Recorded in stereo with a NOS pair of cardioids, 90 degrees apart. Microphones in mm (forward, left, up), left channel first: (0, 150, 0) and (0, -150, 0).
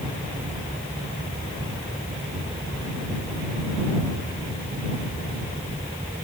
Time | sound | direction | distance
0.0 | a fan | 10° right | ?